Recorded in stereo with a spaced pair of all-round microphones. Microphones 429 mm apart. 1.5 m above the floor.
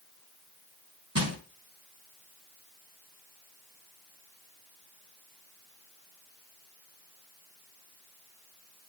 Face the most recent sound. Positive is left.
turn(degrees=-35)  # may be behind; listen again after turning